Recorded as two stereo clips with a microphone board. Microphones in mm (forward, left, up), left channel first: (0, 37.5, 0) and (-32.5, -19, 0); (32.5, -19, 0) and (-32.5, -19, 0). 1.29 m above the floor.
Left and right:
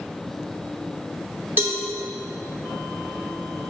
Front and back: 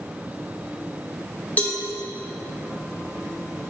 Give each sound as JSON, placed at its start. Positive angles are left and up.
{"t": 1.6, "sound": "a cowbell", "azimuth_deg": -65, "distance_m": 1.3}